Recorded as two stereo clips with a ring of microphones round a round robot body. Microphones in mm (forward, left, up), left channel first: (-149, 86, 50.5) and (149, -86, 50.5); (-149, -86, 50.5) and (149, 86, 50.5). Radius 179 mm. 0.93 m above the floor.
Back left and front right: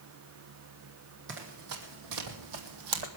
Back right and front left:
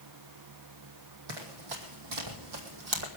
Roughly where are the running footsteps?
Ahead left.